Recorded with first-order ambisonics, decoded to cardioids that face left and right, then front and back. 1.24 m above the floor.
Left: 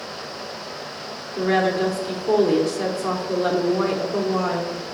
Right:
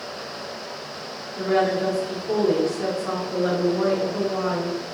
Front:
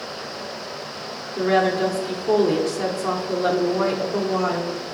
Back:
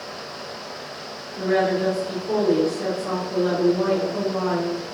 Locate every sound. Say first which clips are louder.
1.4 s a woman speaking: left 1 dB, front 2 dB; 45° left, 0.8 m